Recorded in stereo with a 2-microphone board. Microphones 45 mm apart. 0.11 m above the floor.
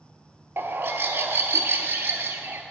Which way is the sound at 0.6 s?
55° right (ahead or behind).